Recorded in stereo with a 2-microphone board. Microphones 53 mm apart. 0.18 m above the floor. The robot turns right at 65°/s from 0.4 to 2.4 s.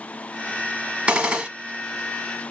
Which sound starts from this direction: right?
A gunshot, at 1.1 s.